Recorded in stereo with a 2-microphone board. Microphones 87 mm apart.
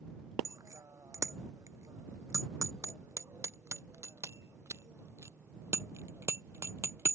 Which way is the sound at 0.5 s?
40° right (ahead or behind).